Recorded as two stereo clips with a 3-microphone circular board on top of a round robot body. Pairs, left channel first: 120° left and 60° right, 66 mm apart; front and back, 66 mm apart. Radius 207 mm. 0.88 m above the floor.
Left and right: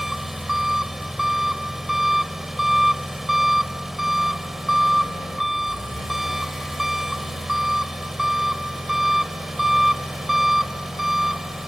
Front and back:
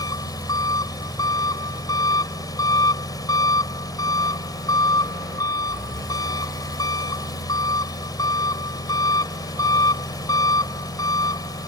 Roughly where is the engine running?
Ahead left.